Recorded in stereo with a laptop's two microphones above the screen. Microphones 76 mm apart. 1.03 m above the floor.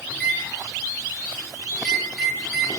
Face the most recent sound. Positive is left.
turn(degrees=5)  # may be behind; listen again after turning